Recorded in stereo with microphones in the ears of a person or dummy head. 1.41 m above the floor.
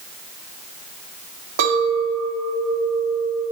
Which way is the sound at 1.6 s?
70° right (ahead or behind).